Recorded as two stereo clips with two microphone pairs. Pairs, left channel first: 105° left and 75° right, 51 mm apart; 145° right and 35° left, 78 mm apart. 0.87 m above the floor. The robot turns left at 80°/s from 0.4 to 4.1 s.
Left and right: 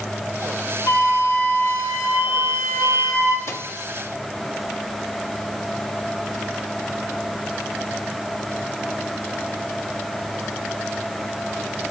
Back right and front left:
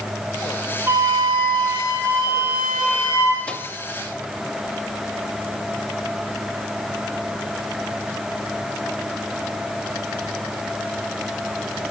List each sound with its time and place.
0.9 s a flute: 95° left, 5 m; by 3.4 s 105° right, 5 m
3.5 s a microwave: 140° left, 0.9 m; by 3.7 s 120° left, 0.9 m